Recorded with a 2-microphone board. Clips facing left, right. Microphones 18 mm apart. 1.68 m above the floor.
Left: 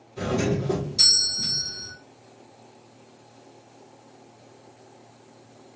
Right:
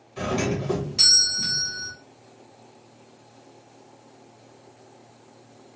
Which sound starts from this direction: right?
A doorbell, at 0.2 s.